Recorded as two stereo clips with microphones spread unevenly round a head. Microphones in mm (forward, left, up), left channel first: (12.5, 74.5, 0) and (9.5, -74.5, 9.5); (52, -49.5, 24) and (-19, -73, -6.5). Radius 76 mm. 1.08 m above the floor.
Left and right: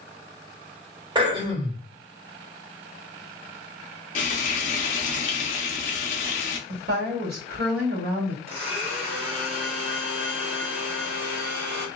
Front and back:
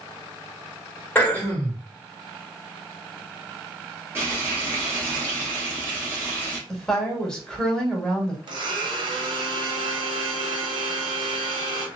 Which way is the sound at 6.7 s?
70° right.